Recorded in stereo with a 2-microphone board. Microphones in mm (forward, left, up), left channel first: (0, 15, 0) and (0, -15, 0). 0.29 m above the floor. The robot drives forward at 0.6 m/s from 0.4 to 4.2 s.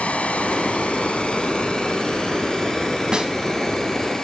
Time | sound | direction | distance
0.0 | running water | 60° left (ahead or behind) | 1.0 m
3.1 | a snare drum | 30° right (ahead or behind) | 1.4 m